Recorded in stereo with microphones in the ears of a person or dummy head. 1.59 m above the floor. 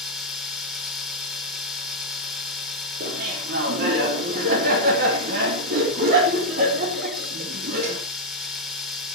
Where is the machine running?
5° right (ahead or behind), 2 m.